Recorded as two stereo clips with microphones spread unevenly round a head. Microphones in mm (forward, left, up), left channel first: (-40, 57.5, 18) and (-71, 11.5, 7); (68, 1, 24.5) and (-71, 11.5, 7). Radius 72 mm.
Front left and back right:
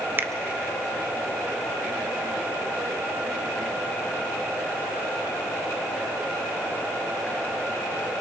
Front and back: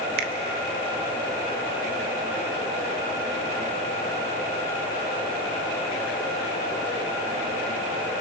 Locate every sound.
0.2 s a finger snap: 170° right, 1.3 m